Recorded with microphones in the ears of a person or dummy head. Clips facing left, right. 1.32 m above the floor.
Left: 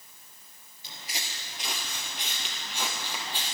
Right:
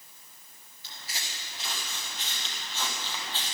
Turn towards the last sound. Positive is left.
turn(degrees=15)  # may be behind; listen again after turning